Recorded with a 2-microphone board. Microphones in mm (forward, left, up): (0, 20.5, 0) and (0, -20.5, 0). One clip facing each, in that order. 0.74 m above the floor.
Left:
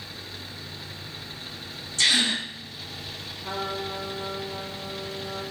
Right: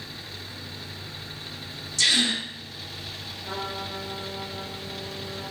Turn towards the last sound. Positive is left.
turn(degrees=55)  # may be behind; listen again after turning